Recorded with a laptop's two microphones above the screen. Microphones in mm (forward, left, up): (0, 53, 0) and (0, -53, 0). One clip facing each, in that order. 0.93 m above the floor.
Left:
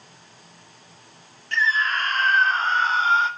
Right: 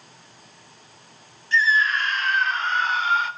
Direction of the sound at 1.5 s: 60° left (ahead or behind).